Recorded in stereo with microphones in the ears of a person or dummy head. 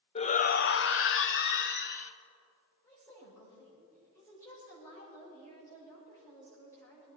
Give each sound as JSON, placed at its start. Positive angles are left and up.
{"t": 0.1, "sound": "a shout", "side_deg": 30, "distance_m": 0.9}
{"t": 2.8, "sound": "a woman speaking", "side_deg": 20, "distance_m": 7.0}